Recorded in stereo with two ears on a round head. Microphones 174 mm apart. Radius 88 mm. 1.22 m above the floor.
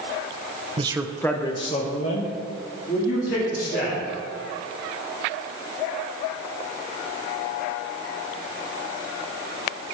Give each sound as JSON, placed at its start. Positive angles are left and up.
{"t": 0.8, "sound": "a man speaking", "side_deg": -30, "distance_m": 0.8}